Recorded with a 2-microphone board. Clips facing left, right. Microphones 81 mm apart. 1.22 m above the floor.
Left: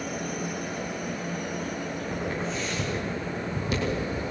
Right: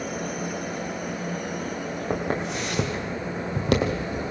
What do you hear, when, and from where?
2.1 s footsteps: 70° right (ahead or behind), 3.5 m; by 4.2 s 60° right (ahead or behind), 2.5 m